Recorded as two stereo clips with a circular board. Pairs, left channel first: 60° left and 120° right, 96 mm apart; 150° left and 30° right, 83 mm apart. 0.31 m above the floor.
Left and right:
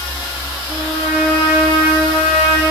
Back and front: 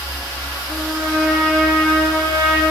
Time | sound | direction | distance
0.7 | a trumpet | 65° left | 3.5 m